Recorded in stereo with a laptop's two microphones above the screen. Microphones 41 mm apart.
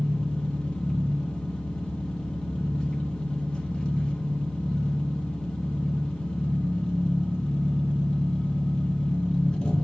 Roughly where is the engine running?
Left.